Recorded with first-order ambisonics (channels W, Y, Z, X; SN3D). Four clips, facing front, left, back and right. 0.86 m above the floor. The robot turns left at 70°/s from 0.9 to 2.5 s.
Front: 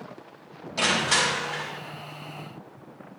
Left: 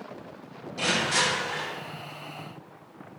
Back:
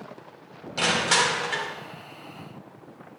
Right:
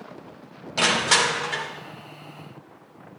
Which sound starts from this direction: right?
Crushing, at 0.8 s.